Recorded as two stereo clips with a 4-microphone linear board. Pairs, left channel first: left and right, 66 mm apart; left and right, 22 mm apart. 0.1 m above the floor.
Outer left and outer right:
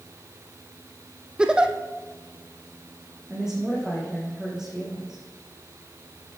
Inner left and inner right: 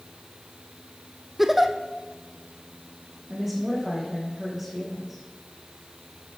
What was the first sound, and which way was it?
A giggle, 15° right (ahead or behind).